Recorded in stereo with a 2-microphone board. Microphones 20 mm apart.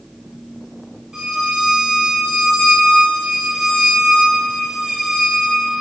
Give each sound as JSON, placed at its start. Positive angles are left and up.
{"t": 1.1, "sound": "a violin", "side_deg": -40, "distance_m": 0.8}